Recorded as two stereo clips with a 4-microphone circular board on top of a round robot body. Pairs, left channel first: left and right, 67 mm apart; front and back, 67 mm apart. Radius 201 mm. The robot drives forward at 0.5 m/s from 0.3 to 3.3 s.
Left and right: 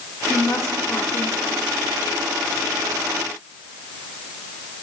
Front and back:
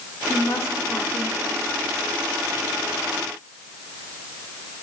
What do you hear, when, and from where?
0.3 s a woman speaking: 45° left, 2.5 m; by 1.6 s 60° left, 2 m